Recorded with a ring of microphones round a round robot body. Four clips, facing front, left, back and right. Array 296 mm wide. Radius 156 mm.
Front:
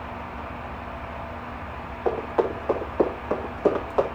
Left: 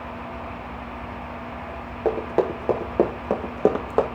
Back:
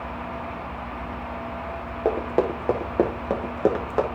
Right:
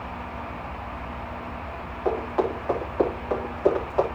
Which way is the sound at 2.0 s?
145° left.